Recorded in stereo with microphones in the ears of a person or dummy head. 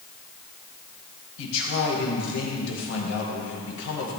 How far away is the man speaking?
About 2 m.